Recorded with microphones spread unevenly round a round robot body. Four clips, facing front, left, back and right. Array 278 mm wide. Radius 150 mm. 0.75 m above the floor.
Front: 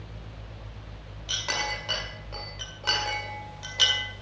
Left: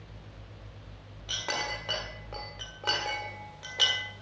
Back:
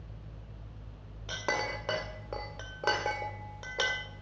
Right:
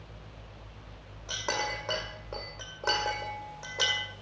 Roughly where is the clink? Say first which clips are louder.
Right 2 dB, even; behind.